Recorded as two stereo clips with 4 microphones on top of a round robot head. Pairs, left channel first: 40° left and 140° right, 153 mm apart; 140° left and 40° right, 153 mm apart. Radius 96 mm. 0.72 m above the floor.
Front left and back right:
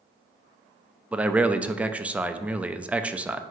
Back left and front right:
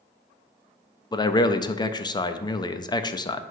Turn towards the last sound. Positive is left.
turn(degrees=150)